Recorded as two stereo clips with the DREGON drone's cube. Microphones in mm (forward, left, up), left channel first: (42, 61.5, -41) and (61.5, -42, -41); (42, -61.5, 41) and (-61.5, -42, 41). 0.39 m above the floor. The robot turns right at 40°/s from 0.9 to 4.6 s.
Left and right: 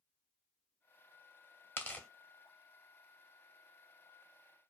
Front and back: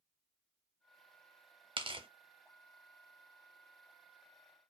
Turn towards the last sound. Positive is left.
turn(degrees=-80)